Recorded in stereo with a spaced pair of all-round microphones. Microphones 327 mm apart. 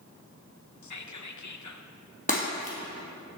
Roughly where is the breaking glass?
Left.